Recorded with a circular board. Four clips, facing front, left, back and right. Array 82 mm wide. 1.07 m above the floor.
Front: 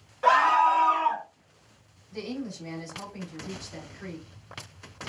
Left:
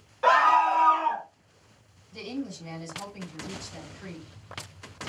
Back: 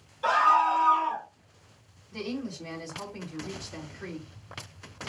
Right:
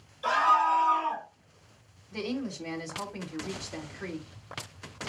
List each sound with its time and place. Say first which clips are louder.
0.2 s a scream: left 4 dB, front 2 dB; 55° left, 2 m; by 1.2 s 20° left, 1.7 m
2.1 s a woman speaking: right 2 dB, even; 90° right, 2.5 m